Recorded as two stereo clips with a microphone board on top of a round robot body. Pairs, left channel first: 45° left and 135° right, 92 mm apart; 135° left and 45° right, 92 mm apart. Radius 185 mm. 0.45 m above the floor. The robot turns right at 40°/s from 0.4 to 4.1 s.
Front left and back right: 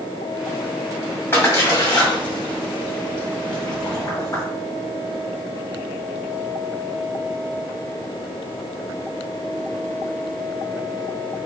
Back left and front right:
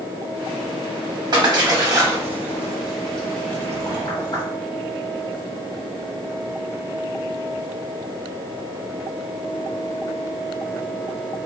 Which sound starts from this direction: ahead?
A splash, at 1.3 s.